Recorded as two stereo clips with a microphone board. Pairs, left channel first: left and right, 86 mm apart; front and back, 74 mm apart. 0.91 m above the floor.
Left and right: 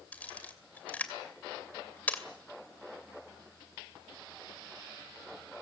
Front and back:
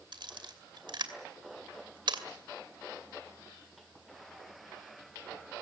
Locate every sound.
0.1 s a camera shutter: 165° left, 2.5 m